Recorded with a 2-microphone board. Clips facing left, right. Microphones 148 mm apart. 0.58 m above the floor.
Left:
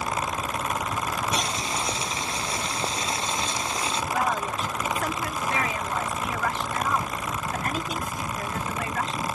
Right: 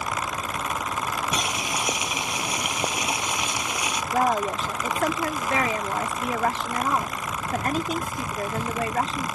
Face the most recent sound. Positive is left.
turn(degrees=-35)  # may be behind; listen again after turning